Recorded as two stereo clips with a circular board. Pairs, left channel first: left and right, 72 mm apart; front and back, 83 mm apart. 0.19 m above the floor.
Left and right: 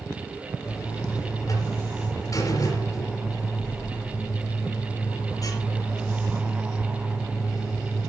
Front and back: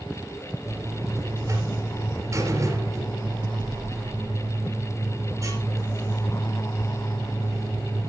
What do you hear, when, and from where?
0.7 s a buzzer: 130° left, 4 m